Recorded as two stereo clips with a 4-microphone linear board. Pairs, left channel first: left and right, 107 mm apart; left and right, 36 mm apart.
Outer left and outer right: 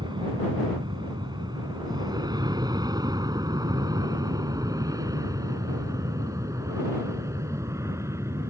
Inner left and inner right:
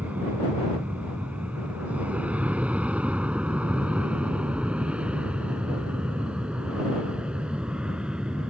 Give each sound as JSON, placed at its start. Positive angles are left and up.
{"t": 0.0, "sound": "an aircraft", "side_deg": -45}